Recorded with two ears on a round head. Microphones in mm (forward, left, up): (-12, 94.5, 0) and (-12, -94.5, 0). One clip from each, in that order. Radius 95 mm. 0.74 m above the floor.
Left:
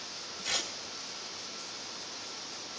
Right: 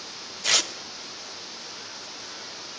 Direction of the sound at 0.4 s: 40° right (ahead or behind).